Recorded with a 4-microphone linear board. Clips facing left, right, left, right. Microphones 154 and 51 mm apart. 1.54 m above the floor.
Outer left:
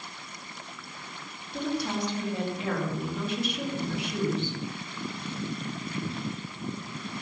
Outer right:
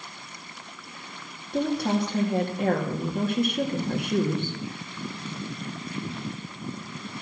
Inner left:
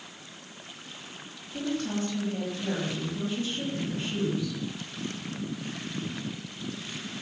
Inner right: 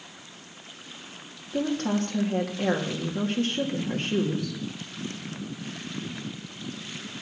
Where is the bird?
No bird in this recording.